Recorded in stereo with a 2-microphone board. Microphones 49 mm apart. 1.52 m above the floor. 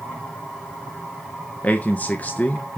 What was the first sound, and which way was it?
A man speaking, 35° left (ahead or behind).